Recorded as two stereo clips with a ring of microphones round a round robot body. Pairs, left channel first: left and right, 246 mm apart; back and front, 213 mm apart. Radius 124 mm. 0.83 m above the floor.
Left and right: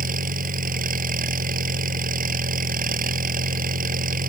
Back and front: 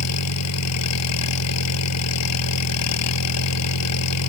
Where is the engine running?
150° right.